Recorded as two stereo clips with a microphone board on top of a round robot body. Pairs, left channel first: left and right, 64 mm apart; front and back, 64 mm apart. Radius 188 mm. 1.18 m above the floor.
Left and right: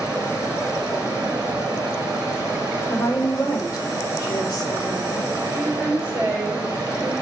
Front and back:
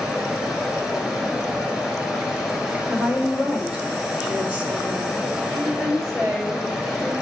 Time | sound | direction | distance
0.0 | running water | 110° right | 1.6 m
2.9 | a woman speaking | 110° left | 1.9 m
5.5 | a woman speaking | 150° right | 3.5 m